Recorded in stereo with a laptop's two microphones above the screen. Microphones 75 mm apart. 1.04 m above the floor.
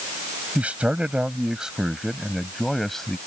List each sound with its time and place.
0.6 s a man speaking: 15° right (ahead or behind); by 3.2 s 5° left (ahead or behind)